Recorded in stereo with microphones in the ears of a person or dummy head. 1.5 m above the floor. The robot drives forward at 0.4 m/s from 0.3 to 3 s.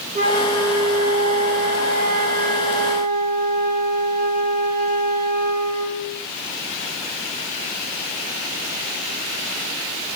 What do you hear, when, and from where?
0.1 s a flute: 35° right (ahead or behind), 2.5 m; by 6.2 s 50° right (ahead or behind), 1.9 m